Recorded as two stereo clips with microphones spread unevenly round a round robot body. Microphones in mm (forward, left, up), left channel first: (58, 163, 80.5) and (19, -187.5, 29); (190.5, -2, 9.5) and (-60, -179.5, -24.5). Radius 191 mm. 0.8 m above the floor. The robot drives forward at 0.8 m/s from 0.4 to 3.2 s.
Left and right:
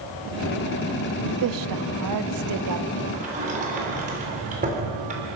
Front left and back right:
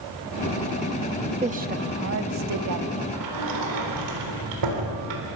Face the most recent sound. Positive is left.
turn(degrees=-165)